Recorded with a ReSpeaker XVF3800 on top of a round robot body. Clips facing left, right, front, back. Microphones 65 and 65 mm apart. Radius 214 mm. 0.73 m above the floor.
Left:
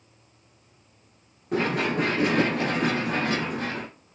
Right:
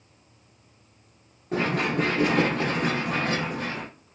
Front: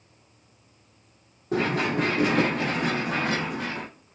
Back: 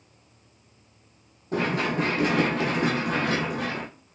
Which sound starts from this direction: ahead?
Running footsteps, at 1.5 s.